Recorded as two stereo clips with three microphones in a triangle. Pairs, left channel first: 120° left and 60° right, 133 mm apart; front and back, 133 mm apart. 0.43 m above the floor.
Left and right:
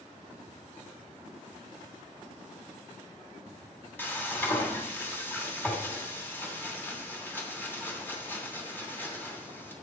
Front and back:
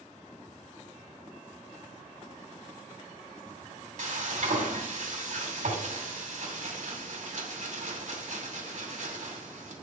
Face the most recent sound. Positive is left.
turn(degrees=-165)